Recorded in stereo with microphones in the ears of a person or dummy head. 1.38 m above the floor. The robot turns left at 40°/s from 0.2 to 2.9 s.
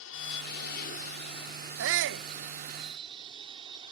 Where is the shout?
70° right (ahead or behind); by 2.3 s 65° right (ahead or behind).